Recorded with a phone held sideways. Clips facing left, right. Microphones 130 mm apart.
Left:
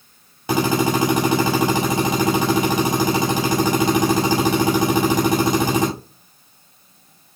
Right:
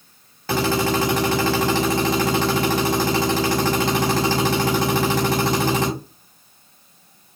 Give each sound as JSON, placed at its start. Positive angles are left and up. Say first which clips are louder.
{"t": 0.5, "sound": "a drill", "louder": "left 2 dB", "side_deg": 15, "distance_m": 5.0}